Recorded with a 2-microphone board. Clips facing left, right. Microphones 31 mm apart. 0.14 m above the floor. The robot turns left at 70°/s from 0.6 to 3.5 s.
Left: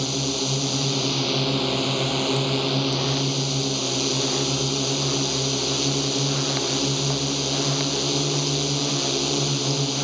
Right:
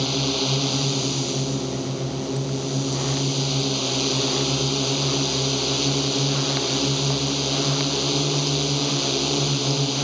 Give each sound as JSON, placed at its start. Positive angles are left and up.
{"t": 0.0, "sound": "a drone", "azimuth_deg": -165}